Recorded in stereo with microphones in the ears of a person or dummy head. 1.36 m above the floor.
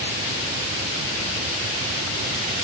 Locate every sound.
Only background noise.